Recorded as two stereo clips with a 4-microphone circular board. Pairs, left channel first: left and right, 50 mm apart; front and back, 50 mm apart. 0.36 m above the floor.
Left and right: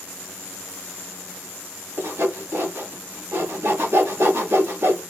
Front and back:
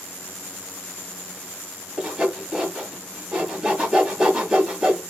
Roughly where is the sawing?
Right.